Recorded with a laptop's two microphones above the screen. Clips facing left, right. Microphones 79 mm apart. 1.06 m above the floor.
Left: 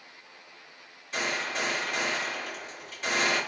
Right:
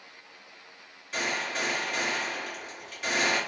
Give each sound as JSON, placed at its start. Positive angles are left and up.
{"t": 1.1, "sound": "a gunshot", "side_deg": 0, "distance_m": 2.0}